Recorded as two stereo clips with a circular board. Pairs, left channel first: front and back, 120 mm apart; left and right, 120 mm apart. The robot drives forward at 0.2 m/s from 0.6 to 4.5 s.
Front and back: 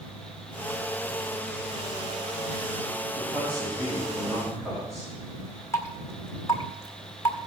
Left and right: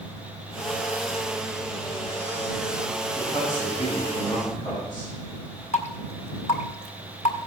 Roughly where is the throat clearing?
No throat clearing in this recording.